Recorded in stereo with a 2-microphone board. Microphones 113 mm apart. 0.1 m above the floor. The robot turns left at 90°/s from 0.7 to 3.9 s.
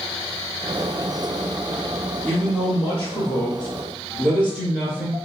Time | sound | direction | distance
2.2 | a man speaking | 160° left | 1.2 m